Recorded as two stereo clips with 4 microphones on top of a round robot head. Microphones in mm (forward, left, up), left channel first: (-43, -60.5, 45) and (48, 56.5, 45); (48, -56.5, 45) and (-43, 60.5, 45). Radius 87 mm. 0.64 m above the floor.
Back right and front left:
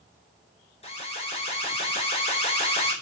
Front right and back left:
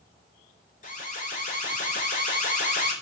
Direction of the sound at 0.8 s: 80° right.